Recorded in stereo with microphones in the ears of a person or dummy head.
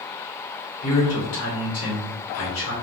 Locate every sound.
0.8 s a man speaking: 65° left (ahead or behind), 1.6 m